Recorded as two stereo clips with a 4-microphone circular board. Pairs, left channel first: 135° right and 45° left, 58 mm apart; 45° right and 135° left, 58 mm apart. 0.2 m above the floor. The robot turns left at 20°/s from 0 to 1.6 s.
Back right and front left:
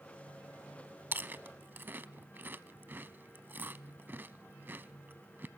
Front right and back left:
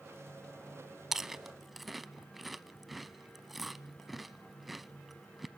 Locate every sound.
1.1 s chewing: 60° left, 0.7 m; by 5.5 s 50° left, 0.7 m